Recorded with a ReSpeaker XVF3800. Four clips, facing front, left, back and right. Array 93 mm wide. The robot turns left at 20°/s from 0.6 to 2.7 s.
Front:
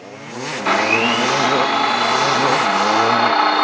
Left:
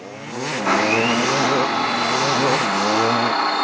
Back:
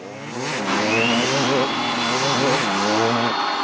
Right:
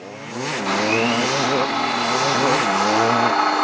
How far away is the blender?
About 1.5 m.